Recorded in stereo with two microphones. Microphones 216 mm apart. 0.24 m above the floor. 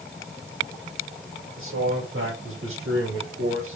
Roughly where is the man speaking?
Right.